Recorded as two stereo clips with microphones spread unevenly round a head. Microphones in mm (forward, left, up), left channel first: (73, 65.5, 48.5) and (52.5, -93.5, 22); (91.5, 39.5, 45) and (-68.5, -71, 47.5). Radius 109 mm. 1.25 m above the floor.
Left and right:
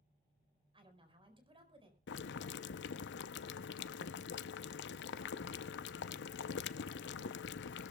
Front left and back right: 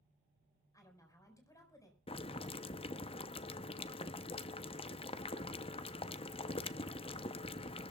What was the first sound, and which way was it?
A woman speaking, 40° right.